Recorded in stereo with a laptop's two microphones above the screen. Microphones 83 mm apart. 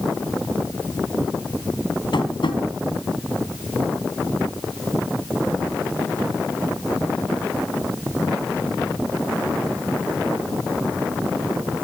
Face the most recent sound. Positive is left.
turn(degrees=70)  # may be behind; listen again after turning